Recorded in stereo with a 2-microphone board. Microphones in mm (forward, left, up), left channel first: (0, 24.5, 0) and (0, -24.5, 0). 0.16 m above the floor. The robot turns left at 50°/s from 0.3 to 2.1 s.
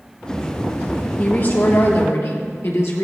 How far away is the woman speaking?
About 2.5 m.